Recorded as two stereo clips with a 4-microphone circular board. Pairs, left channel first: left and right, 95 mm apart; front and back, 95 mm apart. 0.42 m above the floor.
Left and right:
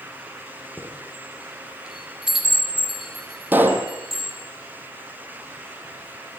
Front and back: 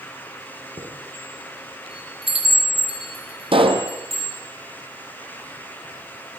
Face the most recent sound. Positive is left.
turn(degrees=-160)